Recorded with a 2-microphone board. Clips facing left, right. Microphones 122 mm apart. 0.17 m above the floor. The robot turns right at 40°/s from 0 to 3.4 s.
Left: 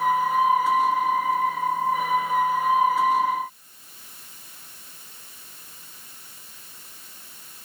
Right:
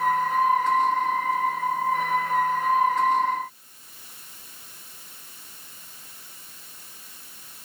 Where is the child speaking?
I don't hear a child speaking.